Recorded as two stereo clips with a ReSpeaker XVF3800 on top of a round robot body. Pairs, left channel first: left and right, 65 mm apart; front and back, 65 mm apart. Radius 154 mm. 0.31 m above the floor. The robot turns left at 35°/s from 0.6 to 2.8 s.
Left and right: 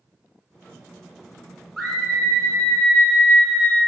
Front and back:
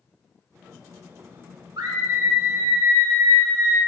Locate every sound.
1.8 s a scream: 175° right, 5 m; by 3.8 s 145° left, 5 m